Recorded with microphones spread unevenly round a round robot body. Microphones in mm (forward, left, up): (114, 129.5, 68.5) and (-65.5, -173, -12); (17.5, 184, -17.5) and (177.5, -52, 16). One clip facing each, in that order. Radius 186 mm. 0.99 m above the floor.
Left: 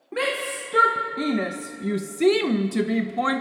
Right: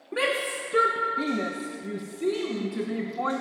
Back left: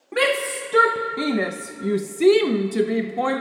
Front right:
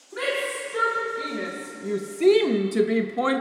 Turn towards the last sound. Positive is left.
turn(degrees=25)